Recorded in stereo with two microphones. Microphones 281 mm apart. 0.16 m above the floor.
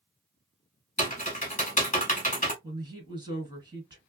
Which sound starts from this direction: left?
Typing on a keyboard, at 1.0 s.